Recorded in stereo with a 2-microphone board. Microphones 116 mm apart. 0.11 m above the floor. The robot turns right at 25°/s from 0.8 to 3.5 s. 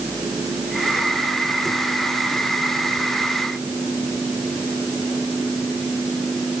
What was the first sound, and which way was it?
Only background noise.